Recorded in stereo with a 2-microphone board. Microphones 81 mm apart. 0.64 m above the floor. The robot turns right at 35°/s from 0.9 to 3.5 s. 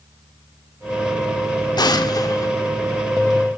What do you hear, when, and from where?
1.8 s an explosion: 60° left (ahead or behind), 1.7 m; by 2.5 s 45° left (ahead or behind), 1.7 m